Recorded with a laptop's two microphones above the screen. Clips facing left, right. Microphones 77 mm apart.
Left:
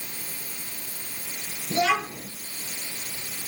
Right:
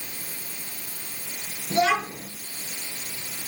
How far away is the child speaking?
About 6 m.